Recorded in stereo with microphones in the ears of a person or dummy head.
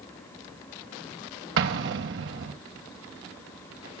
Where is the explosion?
75° right (ahead or behind), 1.7 m.